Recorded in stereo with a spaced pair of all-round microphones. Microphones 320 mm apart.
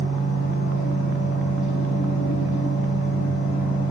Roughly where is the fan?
Left.